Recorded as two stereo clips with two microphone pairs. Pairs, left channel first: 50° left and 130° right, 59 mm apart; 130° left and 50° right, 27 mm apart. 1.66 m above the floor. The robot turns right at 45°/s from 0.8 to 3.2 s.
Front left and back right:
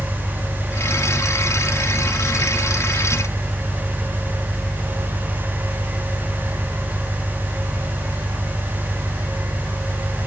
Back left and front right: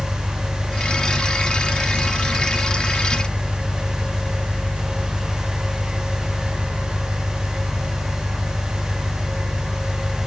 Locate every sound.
0.0 s an engine running: 55° left, 4 m; by 10.3 s 160° left, 4 m